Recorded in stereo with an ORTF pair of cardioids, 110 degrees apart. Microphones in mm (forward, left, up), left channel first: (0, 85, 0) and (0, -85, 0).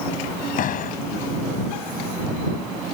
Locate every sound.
0.6 s a door slam: 55° left